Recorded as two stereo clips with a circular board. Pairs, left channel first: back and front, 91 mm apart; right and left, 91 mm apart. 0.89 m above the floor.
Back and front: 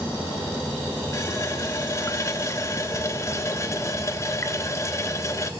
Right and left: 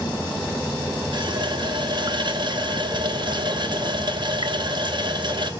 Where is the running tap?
120° left, 0.8 m.